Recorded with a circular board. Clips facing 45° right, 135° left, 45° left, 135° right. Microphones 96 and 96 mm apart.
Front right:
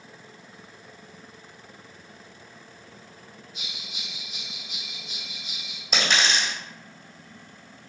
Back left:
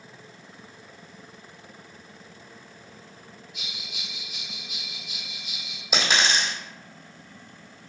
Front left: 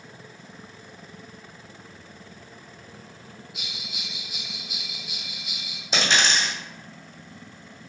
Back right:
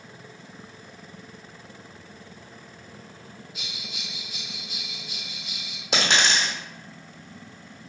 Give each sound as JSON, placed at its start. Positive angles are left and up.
{"t": 3.5, "sound": "a bell", "azimuth_deg": -20, "distance_m": 1.9}
{"t": 5.9, "sound": "a dropped coin", "azimuth_deg": -140, "distance_m": 1.5}